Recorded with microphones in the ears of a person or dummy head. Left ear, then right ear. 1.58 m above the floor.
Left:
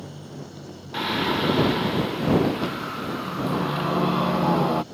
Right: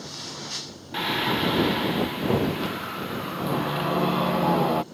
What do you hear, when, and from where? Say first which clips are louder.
0.9 s singing: left 1 dB; 15° right (ahead or behind)